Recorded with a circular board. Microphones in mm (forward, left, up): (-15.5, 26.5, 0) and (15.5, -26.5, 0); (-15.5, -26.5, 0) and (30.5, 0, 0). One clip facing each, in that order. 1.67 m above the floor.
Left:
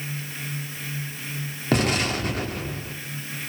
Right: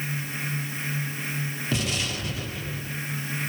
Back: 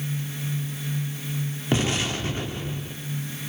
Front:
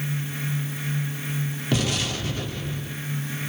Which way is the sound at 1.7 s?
155° left.